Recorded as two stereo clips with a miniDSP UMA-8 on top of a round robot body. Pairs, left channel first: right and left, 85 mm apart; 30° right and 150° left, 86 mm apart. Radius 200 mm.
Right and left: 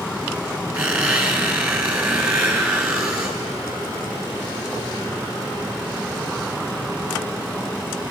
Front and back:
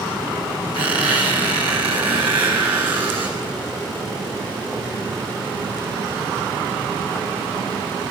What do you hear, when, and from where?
0.7 s a squeak: 160° left, 1.3 m